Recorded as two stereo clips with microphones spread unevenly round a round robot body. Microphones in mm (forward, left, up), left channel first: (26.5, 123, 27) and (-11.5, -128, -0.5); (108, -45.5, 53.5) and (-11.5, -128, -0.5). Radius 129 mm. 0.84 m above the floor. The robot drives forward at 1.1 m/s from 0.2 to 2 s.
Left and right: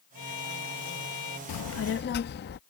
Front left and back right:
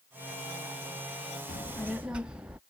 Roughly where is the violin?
Left.